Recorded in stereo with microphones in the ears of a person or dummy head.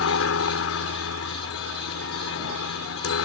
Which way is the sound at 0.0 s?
70° left (ahead or behind).